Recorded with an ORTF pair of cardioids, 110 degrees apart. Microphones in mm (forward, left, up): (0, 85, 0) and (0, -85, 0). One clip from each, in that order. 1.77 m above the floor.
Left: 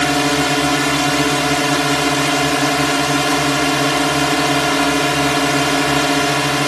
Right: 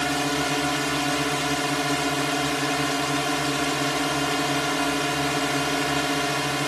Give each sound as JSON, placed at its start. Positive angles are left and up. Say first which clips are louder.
{"t": 0.0, "sound": "a drone", "louder": "left 9 dB", "azimuth_deg": 55}